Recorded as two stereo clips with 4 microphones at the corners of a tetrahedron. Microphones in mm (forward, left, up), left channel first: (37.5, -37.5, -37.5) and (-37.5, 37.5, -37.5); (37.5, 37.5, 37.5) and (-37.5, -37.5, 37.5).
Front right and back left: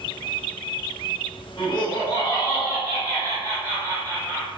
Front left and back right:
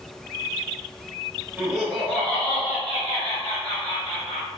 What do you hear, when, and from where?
1.6 s laughter: 60° right, 0.9 m; by 4.5 s 40° left, 1.7 m